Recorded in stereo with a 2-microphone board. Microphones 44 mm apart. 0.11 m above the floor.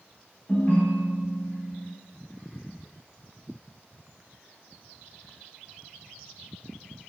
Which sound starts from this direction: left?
A ringtone, at 0.5 s.